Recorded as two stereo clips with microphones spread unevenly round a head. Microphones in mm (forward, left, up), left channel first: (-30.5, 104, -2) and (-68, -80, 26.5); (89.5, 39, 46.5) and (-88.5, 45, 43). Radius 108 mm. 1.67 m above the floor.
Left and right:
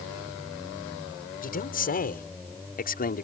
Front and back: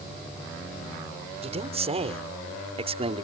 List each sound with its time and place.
1.4 s a man speaking: 120° left